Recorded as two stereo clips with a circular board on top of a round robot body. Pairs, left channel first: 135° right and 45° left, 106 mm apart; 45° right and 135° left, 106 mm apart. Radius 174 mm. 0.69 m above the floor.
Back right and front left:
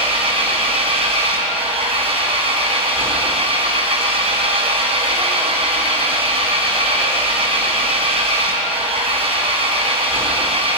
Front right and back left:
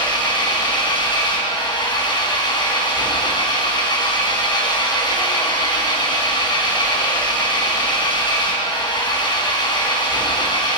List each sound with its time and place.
0.0 s an engine running: 5° left, 4.5 m